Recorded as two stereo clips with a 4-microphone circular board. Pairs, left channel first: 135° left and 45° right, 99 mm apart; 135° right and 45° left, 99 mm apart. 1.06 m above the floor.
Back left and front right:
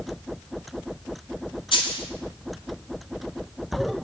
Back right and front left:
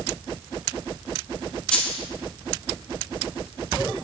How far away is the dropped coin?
About 1.8 m.